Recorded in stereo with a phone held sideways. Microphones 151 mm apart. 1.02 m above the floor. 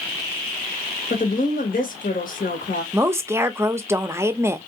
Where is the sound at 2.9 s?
15° right (ahead or behind), 0.5 m.